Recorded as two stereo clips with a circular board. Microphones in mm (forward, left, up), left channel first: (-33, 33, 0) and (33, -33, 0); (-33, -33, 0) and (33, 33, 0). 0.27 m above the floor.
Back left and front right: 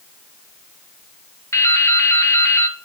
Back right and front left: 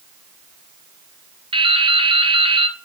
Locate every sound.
1.5 s dripping: 75° left, 0.7 m